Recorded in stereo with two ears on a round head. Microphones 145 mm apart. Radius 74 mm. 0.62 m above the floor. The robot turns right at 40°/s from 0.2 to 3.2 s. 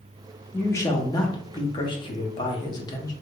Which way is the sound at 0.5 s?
15° left (ahead or behind).